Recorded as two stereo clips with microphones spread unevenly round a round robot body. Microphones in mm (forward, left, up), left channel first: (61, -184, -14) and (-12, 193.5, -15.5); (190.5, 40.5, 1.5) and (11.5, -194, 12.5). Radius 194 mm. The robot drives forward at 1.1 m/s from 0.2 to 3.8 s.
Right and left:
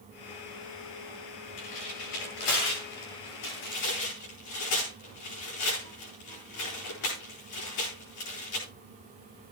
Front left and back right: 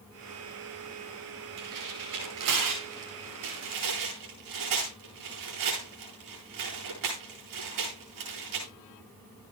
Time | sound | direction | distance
1.6 | tearing paper | 115° right | 10 m